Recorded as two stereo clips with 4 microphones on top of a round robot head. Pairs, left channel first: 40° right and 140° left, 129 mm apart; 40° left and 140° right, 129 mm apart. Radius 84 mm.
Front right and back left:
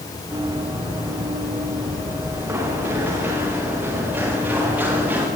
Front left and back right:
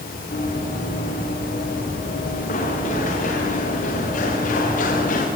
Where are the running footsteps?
75° left, 7 m; by 5.3 s 65° left, 11 m.